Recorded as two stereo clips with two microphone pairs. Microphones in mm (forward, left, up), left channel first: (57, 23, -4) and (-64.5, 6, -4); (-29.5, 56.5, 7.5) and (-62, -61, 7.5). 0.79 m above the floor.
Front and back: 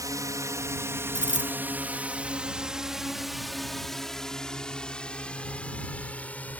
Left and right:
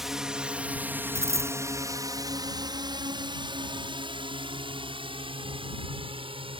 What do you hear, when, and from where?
0.0 s a drone: 170° left; by 6.6 s 70° right
1.1 s a dropped coin: 170° right